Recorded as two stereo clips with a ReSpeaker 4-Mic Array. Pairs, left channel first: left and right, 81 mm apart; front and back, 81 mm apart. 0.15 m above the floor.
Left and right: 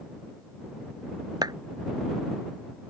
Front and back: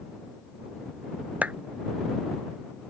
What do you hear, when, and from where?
1.4 s a clap: 110° right